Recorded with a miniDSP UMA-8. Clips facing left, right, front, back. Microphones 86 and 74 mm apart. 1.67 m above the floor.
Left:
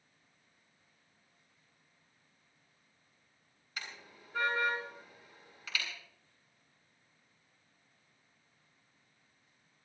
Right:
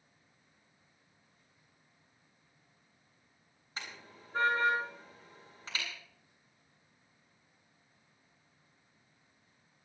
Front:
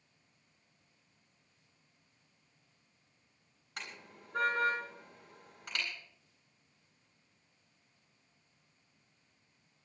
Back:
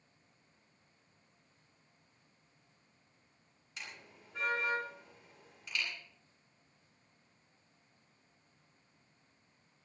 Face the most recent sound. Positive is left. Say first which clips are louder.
# right 1 dB, front 3 dB
turn(degrees=-30)